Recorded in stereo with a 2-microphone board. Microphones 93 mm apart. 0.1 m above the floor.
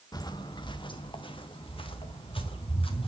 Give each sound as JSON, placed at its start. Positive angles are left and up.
{"t": 0.1, "sound": "footsteps", "side_deg": 45, "distance_m": 0.6}